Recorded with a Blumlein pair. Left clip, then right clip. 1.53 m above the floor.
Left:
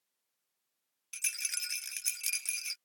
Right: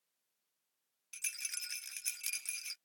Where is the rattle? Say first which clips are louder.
Left 6 dB; 15° left.